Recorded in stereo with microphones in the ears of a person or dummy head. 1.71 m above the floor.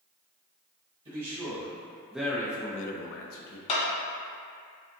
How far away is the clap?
About 1.0 m.